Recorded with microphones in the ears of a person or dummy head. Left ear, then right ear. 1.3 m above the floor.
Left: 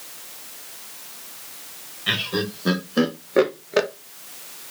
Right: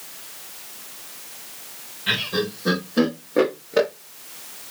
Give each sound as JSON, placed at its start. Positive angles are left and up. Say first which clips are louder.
{"t": 2.1, "sound": "laughter", "louder": "right 1 dB", "side_deg": 15, "distance_m": 1.4}